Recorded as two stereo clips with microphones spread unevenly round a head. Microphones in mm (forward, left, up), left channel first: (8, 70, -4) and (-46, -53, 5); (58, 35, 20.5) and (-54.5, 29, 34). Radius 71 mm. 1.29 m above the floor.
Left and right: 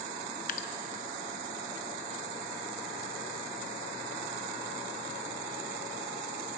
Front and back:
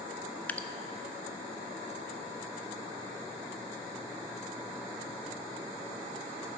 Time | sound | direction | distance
0.5 | dripping | 80° left | 0.6 m